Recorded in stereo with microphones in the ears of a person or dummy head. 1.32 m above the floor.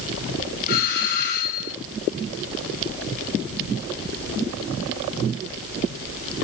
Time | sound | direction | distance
0.7 | a doorbell | 50° left (ahead or behind) | 8.5 m